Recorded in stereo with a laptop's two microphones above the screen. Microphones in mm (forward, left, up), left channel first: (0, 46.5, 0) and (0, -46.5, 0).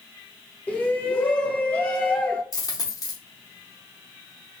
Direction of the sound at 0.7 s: 15° left (ahead or behind).